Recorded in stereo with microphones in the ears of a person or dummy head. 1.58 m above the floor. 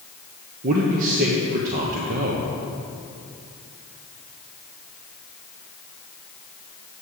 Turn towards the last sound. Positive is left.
turn(degrees=-50)  # may be behind; listen again after turning